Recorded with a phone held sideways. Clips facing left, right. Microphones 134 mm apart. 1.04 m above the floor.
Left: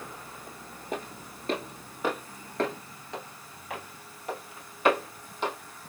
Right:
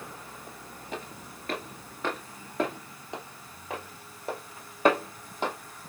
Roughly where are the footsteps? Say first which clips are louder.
Left 4 dB; left.